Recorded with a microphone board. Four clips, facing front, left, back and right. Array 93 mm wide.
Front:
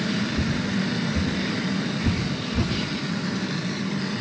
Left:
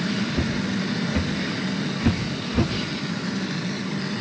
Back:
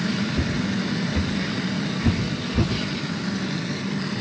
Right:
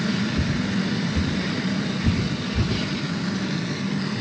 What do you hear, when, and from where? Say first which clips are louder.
0.3 s footsteps: right 1 dB, even; 120° left, 6 m; by 2.7 s 115° left, 4.5 m